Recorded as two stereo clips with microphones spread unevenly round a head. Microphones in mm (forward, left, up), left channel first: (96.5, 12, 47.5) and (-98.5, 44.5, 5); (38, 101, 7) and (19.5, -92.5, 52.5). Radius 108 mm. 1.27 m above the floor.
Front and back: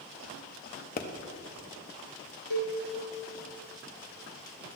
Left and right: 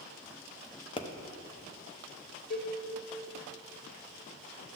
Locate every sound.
1.0 s a pop: 40° left, 0.9 m
2.5 s a cowbell: 15° left, 2.5 m